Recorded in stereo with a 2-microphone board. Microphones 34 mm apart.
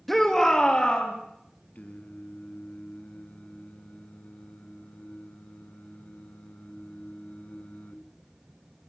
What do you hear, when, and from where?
0.1 s a shout: 5° left (ahead or behind), 2 m; by 1.1 s 30° left (ahead or behind), 3.5 m
1.8 s singing: 55° left (ahead or behind), 2 m